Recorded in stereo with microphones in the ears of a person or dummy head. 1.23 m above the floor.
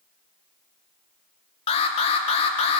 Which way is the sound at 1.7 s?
35° left (ahead or behind).